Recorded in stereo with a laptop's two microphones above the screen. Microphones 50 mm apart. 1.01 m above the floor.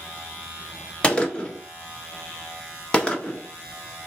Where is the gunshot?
20° left (ahead or behind), 1.2 m.